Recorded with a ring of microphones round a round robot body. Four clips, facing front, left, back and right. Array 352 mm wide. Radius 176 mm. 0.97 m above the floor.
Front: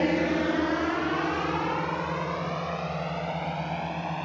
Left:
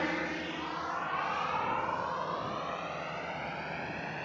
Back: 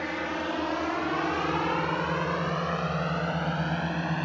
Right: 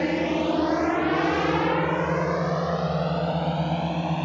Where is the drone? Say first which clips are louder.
Right 11 dB, front 7 dB; 40° right; by 4.2 s 115° right.